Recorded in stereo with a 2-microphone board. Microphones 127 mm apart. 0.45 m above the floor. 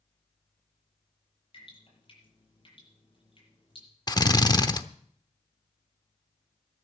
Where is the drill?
30° left (ahead or behind), 0.8 m.